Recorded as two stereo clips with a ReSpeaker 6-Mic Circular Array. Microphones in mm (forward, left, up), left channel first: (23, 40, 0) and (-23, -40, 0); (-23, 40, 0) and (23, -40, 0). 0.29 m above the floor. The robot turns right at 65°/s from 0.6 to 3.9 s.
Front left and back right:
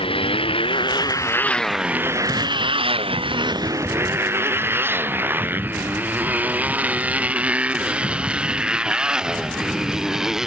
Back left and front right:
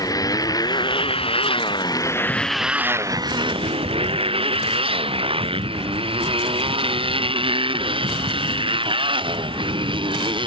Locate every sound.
0.0 s a motorcycle: 70° left; by 10.5 s 35° right